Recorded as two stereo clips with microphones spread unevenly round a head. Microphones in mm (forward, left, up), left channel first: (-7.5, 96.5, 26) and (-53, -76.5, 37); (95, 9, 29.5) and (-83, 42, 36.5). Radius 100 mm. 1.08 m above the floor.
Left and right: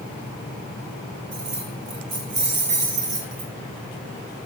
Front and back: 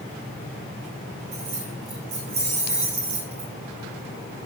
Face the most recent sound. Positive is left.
turn(degrees=-130)